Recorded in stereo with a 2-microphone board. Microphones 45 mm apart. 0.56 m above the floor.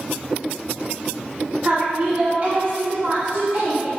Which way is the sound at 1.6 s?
30° right (ahead or behind).